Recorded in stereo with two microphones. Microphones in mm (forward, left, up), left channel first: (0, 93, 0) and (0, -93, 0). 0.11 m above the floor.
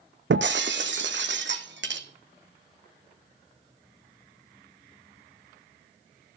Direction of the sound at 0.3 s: 80° right.